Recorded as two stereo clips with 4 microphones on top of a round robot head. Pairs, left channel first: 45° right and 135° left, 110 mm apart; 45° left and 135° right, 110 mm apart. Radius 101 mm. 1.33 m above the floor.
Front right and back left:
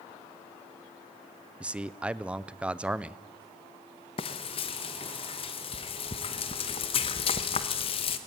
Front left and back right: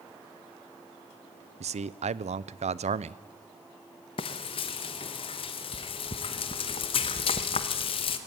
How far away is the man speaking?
About 0.7 m.